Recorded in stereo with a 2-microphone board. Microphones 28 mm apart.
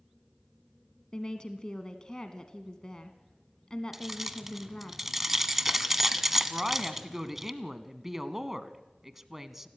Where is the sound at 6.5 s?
15° right (ahead or behind), 1.1 m.